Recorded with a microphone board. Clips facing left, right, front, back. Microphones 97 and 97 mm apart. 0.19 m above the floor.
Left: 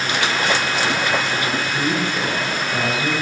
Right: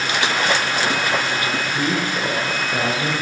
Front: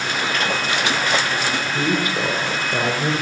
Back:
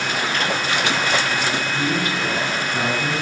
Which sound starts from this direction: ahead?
A woman speaking, at 1.7 s.